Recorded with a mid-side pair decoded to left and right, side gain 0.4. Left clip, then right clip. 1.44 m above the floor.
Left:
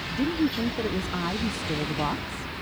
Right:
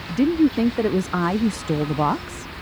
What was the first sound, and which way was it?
A woman speaking, 55° right.